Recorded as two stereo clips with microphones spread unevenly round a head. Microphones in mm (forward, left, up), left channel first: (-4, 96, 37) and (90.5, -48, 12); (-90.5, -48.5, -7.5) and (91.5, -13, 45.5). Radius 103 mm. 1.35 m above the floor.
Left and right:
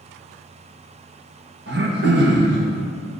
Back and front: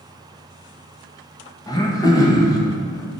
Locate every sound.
1.7 s throat clearing: 95° right, 1.2 m